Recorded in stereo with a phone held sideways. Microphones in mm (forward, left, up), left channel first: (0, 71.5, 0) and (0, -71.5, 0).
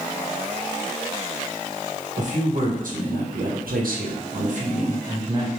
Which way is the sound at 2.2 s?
60° right (ahead or behind).